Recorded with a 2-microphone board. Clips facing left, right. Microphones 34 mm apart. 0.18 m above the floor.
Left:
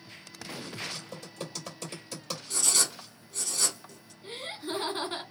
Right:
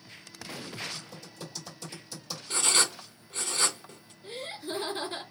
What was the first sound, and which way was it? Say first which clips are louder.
Typing on a keyboard: left 2 dB; 60° left (ahead or behind).